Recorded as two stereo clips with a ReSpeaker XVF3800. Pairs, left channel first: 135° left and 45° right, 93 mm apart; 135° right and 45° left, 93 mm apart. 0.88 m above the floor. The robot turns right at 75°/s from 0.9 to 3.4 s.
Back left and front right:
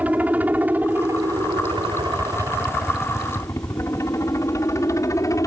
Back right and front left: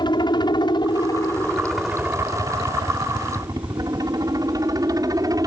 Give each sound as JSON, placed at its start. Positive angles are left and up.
{"t": 0.0, "sound": "a helicopter", "azimuth_deg": -115}